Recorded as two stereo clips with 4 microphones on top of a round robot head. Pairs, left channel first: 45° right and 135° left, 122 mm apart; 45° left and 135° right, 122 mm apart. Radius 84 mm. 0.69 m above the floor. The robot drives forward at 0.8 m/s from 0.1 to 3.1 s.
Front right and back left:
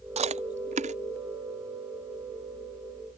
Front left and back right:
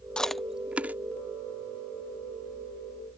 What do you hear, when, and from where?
0.2 s chewing: 125° left; by 1.0 s 145° left